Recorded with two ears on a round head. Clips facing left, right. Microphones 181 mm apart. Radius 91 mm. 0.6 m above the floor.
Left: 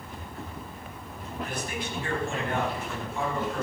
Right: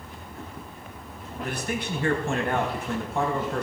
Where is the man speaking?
55° right (ahead or behind), 5 m.